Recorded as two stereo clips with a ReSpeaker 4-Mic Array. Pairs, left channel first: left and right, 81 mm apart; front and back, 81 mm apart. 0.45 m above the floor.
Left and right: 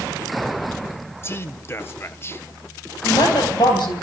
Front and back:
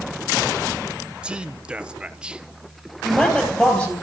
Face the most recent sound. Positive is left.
turn(degrees=70)